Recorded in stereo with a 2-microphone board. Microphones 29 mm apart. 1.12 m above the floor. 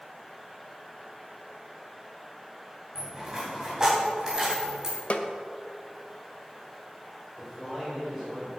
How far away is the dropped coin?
About 3.5 m.